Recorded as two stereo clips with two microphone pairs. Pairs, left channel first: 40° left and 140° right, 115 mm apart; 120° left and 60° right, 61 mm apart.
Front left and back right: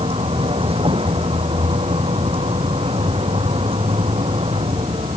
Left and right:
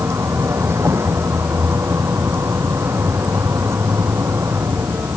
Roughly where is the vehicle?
Right.